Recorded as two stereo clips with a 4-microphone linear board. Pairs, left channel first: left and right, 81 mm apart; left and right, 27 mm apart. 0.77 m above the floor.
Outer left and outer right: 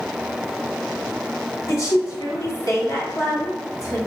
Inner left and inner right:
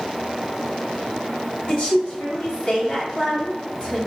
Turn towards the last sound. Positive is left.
turn(degrees=40)  # may be behind; listen again after turning